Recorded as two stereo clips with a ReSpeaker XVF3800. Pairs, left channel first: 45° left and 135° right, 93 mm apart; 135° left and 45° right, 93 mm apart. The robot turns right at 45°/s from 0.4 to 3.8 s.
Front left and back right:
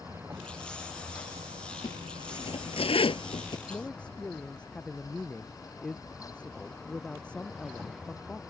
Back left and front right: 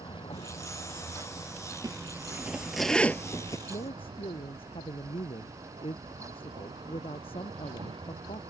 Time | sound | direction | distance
0.0 | a vehicle | 160° left | ?
1.8 | a zipper | 5° left | ?
3.7 | a man speaking | 120° left | ?